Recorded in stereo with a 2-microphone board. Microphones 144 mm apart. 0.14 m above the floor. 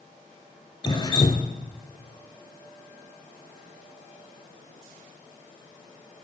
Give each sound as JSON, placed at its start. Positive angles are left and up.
{"t": 0.8, "sound": "dripping", "side_deg": 30, "distance_m": 1.1}